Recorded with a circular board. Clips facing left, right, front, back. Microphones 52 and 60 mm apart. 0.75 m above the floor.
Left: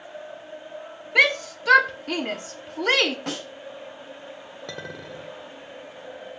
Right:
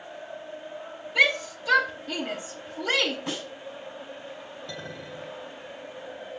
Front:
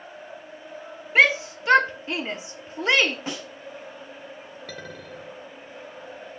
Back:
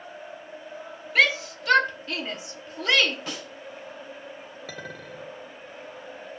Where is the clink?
95° left, 1.7 m.